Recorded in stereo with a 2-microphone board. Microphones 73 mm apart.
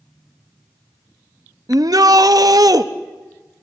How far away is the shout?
About 1.1 m.